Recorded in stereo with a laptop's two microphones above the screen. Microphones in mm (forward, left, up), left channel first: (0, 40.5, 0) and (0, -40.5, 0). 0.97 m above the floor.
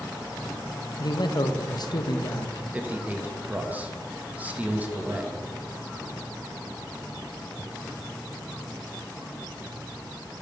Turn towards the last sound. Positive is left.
turn(degrees=-20)  # may be behind; listen again after turning